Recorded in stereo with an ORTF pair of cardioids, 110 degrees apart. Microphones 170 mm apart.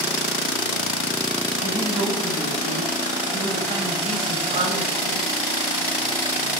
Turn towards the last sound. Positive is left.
turn(degrees=-45)